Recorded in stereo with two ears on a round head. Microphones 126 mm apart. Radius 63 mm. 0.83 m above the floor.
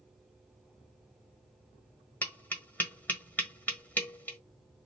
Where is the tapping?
10° left (ahead or behind), 1.4 m.